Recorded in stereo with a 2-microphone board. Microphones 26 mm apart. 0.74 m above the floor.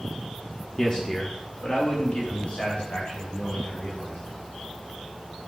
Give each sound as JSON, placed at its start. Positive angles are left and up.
{"t": 0.8, "sound": "a man speaking", "side_deg": 25, "distance_m": 1.0}